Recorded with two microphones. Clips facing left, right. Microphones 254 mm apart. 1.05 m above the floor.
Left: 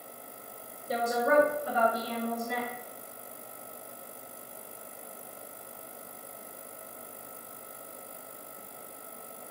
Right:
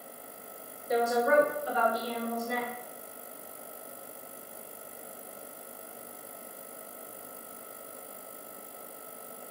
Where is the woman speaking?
35° left (ahead or behind), 0.9 m; by 2.7 s 55° left (ahead or behind), 1.2 m.